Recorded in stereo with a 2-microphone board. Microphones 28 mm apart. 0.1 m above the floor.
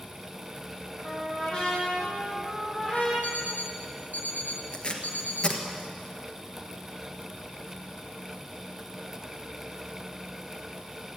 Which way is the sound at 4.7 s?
40° left (ahead or behind).